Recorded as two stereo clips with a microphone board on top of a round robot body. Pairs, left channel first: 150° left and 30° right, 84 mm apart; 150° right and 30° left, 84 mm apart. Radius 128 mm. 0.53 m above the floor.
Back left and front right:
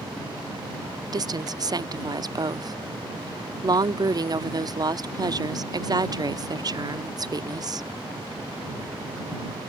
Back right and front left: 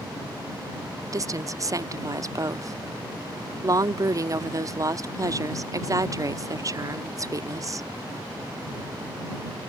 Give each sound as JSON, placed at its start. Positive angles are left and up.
{"t": 1.1, "sound": "a woman speaking", "azimuth_deg": -10}